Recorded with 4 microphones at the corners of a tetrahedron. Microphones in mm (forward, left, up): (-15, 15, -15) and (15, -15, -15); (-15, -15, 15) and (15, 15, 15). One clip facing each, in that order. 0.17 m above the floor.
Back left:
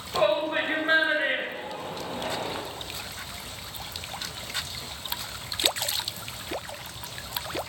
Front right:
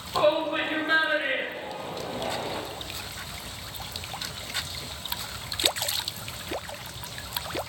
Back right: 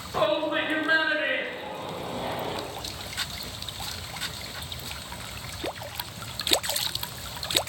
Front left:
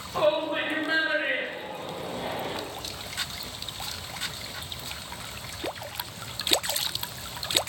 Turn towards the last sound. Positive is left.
turn(degrees=135)